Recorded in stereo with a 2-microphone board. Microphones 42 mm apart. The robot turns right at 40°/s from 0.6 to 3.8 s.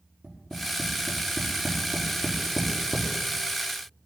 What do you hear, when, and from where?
0.2 s tapping: 60° right (ahead or behind), 5.5 m; by 3.1 s 40° left (ahead or behind), 5.5 m